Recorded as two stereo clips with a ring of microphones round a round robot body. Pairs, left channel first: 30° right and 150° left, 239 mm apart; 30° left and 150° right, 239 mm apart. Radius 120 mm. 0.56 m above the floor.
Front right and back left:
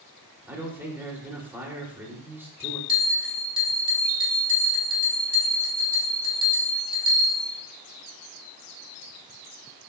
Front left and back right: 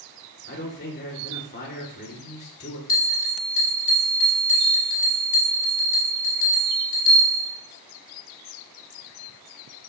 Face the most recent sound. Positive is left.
turn(degrees=85)